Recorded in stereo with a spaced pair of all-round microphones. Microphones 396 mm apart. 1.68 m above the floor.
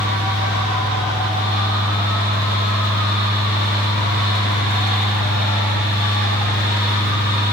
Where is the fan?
20° right (ahead or behind), 1.9 m.